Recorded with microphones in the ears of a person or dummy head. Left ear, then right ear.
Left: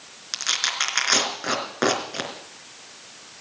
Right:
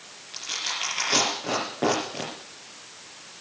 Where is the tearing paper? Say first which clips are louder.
Left 6 dB; 65° left (ahead or behind), 3.5 m.